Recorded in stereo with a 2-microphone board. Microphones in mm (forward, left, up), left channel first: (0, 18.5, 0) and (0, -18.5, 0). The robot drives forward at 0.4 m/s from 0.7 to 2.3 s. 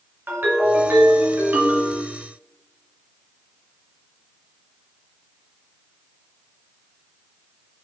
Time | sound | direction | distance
0.3 | a ringtone | 70° right (ahead or behind) | 1.5 m